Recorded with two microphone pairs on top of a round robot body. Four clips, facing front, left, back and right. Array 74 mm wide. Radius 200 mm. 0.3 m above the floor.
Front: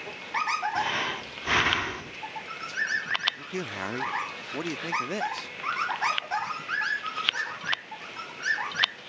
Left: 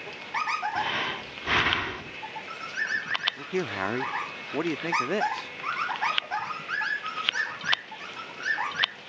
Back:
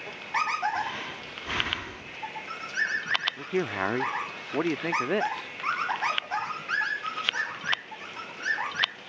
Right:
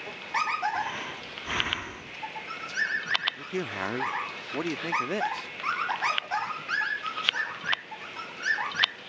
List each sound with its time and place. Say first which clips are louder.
0.8 s breathing: left 3 dB, front 4 dB; 40° left
3.4 s a man speaking: left 3 dB, back 6 dB; 155° left